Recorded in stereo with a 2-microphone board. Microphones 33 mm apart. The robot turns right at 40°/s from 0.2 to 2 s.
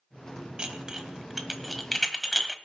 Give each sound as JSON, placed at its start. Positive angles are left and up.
{"t": 0.6, "sound": "dishes clattering", "side_deg": -30, "distance_m": 1.1}